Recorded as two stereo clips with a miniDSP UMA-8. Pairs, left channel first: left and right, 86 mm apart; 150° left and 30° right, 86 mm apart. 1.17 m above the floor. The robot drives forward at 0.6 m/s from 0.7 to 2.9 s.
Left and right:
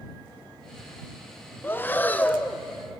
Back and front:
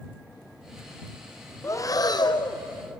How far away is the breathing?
About 0.7 m.